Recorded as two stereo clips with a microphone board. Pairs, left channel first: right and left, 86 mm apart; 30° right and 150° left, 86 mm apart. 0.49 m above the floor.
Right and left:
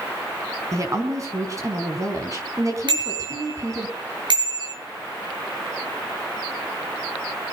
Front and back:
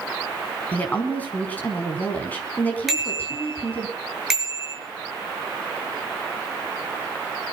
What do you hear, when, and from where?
0.7 s a woman speaking: 40° left, 4.5 m
2.9 s a bicycle bell: 65° left, 6 m